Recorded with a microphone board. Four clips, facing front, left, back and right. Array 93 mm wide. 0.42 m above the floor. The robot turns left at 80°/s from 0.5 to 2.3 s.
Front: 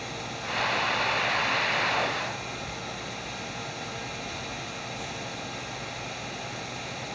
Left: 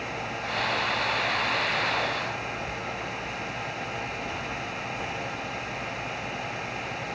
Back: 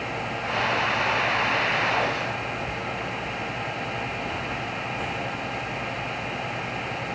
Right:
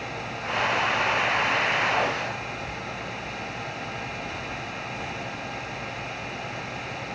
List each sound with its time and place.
Only background noise.